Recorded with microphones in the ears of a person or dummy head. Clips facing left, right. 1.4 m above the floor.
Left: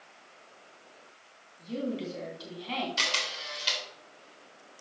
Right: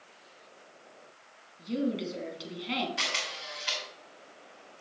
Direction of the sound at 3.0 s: 50° left (ahead or behind).